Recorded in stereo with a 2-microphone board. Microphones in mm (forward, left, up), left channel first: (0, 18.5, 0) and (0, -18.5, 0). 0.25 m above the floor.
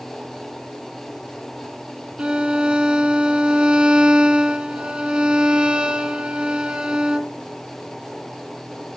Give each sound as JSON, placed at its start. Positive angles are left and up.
{"t": 2.2, "sound": "a violin", "side_deg": -30, "distance_m": 1.3}